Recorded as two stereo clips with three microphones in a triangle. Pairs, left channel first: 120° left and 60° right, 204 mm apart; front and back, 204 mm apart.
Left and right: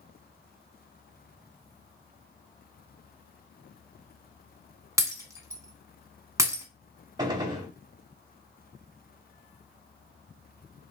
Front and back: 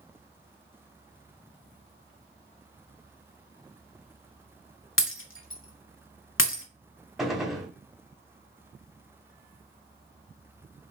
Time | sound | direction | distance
5.0 | breaking glass | 15° left | 1.0 m
7.2 | a gunshot | 95° right | 0.9 m